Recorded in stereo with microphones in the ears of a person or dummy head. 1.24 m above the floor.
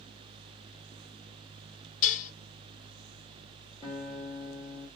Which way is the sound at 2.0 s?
40° left (ahead or behind).